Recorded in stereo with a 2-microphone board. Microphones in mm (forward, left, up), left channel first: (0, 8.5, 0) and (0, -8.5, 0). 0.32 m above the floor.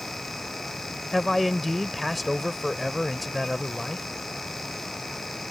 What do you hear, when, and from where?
1.1 s a man speaking: 5° left (ahead or behind)